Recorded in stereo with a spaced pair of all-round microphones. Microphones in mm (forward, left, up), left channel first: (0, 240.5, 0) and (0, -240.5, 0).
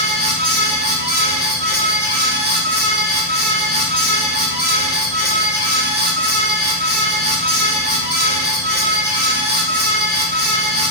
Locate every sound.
0.0 s a fan: 20° right (ahead or behind), 8 m